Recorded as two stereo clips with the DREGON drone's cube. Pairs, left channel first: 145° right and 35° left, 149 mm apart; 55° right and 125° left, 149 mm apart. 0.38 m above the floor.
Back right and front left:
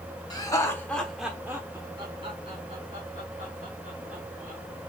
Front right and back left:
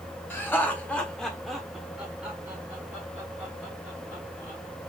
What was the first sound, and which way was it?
Laughter, 115° right.